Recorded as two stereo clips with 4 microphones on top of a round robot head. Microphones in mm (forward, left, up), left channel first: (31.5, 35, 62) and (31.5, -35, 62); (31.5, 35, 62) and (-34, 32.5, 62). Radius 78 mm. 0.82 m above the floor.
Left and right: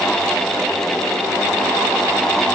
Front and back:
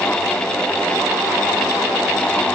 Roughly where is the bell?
I don't hear a bell.